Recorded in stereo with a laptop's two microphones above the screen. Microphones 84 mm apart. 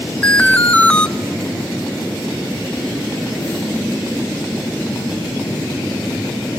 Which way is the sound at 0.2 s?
15° left (ahead or behind).